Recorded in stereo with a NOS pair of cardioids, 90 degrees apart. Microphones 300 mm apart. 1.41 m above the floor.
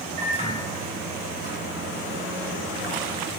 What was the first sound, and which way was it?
A microwave, 25° right.